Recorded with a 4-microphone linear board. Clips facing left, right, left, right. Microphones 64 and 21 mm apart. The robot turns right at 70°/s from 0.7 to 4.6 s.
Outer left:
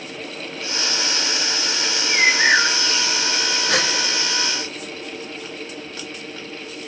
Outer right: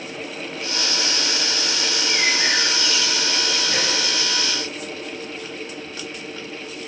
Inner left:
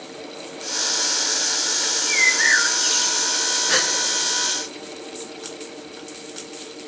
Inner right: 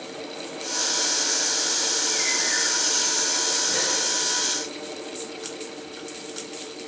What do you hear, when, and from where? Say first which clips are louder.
1.8 s a bird: outer left 5 dB, inner left 5 dB; 70° left, 1.0 m; by 3.3 s 175° left, 1.0 m
3.7 s a gasp: outer left 6 dB, inner left 5 dB; 80° left, 1.2 m